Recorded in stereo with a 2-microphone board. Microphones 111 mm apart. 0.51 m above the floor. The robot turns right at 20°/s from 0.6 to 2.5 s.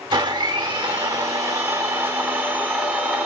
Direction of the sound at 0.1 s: 55° right.